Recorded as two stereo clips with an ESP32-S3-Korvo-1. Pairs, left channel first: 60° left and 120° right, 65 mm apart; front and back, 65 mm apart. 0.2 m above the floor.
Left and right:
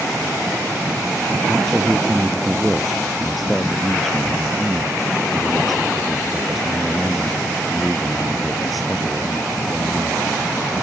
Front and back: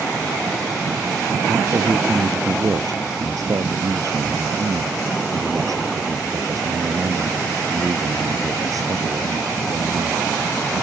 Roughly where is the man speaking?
Behind left.